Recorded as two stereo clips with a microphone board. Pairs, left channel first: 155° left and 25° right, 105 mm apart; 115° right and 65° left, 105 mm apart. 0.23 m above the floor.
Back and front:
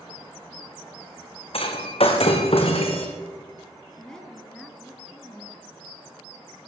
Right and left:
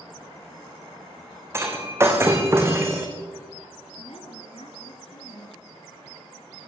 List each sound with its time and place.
1.5 s breaking glass: 130° left, 4 m
4.0 s a woman speaking: 120° right, 3.5 m